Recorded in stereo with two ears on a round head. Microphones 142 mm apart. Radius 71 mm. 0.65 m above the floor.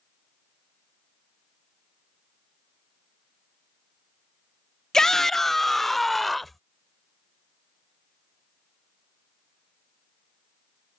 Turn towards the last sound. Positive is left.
turn(degrees=0)  # may be behind; listen again after turning